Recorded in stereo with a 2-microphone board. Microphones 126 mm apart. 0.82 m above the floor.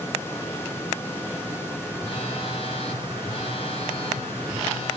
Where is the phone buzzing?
45° left (ahead or behind), 1.7 m.